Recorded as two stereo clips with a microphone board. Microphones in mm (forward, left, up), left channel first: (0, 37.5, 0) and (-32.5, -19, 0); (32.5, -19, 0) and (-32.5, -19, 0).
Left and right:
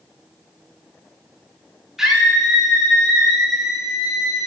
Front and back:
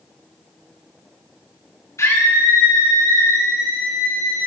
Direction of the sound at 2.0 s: 40° right.